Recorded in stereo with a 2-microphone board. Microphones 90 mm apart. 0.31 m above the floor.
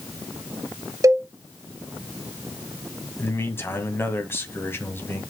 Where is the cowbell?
35° right (ahead or behind), 0.7 m.